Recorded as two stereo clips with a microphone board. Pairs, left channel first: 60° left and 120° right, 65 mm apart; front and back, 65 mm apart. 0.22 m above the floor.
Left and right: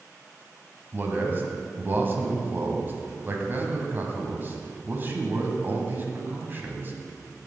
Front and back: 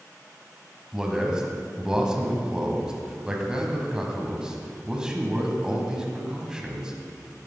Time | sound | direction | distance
0.9 | a man speaking | 110° right | 1.7 m